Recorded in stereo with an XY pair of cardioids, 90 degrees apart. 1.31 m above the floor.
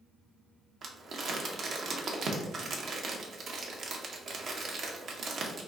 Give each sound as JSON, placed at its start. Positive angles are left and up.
{"t": 0.8, "sound": "crumpling", "azimuth_deg": -60, "distance_m": 1.0}